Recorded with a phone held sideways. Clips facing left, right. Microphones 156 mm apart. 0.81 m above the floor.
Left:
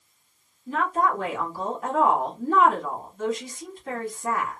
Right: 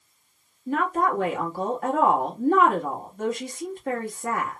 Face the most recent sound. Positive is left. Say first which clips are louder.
# right 1 dB
turn(degrees=-50)  # may be behind; listen again after turning